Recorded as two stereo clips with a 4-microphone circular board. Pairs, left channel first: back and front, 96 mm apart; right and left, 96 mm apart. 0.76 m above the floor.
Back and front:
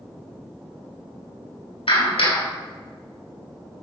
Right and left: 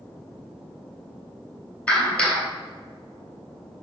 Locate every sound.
1.9 s a clap: 170° right, 3.5 m